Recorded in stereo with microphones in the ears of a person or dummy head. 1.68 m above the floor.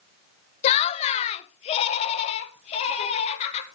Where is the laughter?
40° left (ahead or behind), 0.6 m; by 3.6 s 45° left (ahead or behind), 3.5 m.